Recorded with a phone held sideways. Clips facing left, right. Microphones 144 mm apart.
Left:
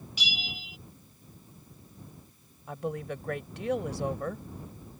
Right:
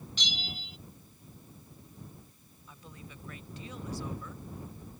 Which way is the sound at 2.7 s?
75° left (ahead or behind).